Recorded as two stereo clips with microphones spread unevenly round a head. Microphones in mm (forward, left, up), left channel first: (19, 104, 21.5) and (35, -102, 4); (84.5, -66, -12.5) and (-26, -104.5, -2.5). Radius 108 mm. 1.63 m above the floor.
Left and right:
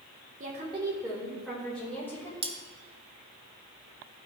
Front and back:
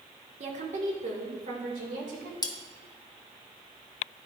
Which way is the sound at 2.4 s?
25° right.